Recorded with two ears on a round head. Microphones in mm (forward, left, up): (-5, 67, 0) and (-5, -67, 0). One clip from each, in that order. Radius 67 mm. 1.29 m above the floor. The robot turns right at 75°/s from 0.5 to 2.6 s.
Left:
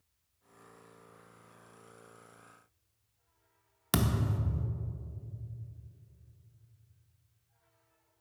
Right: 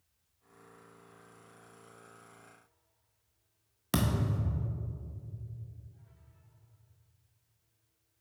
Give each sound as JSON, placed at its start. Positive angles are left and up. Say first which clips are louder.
{"t": 3.9, "sound": "a thud", "louder": "even", "side_deg": 20, "distance_m": 0.6}